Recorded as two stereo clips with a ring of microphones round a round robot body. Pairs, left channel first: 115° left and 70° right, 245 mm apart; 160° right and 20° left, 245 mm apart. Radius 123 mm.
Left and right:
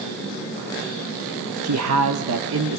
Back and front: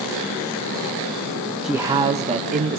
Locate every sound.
1.6 s a man speaking: 65° right, 0.8 m; by 2.8 s 30° right, 1.9 m